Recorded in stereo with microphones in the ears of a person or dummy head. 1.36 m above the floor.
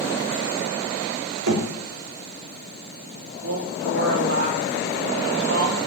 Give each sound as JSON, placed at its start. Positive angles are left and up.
{"t": 1.5, "sound": "knocking", "side_deg": -70, "distance_m": 3.0}
{"t": 3.4, "sound": "a woman speaking", "side_deg": -65, "distance_m": 3.5}